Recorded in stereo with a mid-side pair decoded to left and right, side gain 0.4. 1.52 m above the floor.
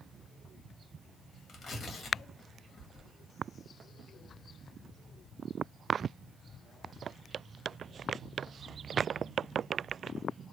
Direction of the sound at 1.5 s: 65° left.